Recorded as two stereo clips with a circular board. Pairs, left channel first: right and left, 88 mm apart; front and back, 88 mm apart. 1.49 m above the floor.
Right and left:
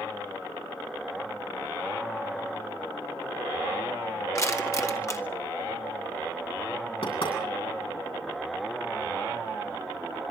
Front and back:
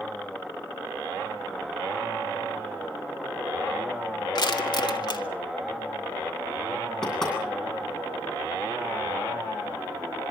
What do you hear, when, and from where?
4.3 s crushing: 35° right, 1.9 m
7.0 s knocking: 80° right, 9 m